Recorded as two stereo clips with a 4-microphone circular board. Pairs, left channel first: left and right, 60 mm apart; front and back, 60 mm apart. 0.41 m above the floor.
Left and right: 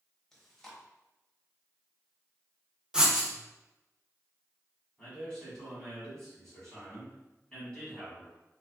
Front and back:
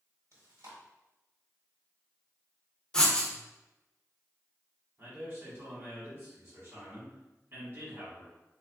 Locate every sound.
0.3 s chewing: 170° left, 1.0 m
2.9 s writing: 45° right, 0.6 m
5.0 s a man speaking: 160° left, 1.5 m